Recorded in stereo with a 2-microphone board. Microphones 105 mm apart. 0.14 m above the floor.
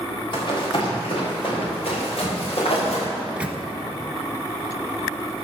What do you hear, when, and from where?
0.3 s running footsteps: 50° left (ahead or behind), 6.5 m; by 3.1 s 70° left (ahead or behind), 8.5 m
3.2 s a microwave: 10° right (ahead or behind), 1.3 m